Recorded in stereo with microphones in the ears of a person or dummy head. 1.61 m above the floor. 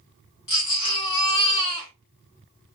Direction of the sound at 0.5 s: 25° left (ahead or behind).